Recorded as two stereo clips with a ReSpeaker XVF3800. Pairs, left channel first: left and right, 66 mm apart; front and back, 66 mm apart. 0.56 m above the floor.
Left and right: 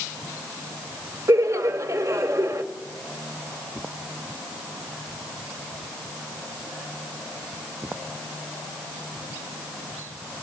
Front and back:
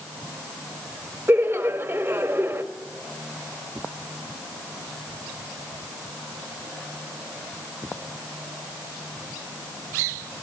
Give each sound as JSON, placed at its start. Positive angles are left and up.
{"t": 1.3, "sound": "laughter", "azimuth_deg": -125, "distance_m": 2.5}